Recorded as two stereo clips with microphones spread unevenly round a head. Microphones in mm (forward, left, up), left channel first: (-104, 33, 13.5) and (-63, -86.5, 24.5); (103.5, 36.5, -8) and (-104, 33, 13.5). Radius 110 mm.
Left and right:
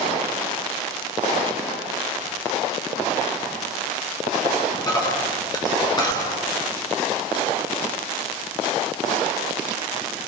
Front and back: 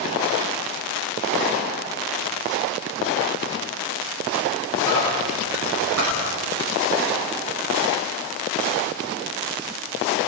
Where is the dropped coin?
165° left, 9.5 m.